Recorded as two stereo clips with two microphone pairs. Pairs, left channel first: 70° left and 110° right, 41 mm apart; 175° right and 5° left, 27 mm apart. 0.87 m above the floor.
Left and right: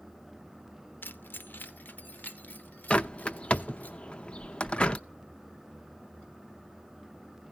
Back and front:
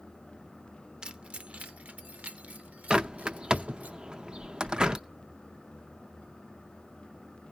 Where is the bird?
40° left, 0.6 m.